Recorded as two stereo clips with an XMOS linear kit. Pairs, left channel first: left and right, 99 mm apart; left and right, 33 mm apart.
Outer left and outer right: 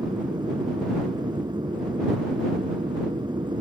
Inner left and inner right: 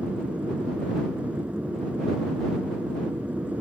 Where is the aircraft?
45° right (ahead or behind); by 3.6 s 50° right (ahead or behind).